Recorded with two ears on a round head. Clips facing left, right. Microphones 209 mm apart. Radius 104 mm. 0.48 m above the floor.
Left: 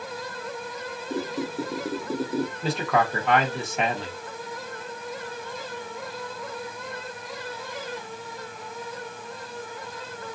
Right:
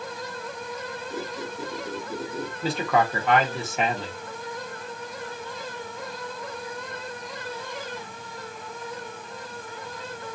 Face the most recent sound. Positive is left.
turn(degrees=0)  # may be behind; listen again after turning